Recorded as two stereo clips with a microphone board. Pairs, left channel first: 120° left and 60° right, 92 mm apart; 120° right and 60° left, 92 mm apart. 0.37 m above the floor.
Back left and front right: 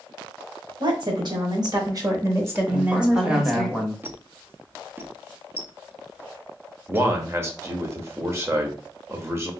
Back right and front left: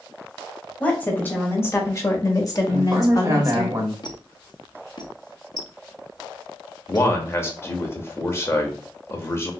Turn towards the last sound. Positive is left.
turn(degrees=-90)